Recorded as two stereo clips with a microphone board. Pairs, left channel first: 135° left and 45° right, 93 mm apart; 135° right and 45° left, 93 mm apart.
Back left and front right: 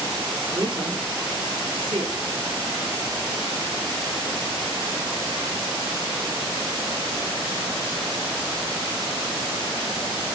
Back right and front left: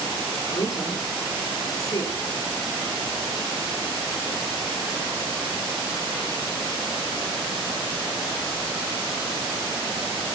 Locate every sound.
0.5 s a woman speaking: 85° right, 8 m; by 2.1 s 80° right, 6.5 m